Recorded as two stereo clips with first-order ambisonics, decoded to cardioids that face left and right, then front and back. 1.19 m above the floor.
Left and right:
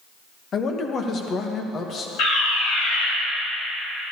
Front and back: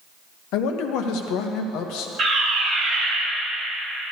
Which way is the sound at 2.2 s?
110° left.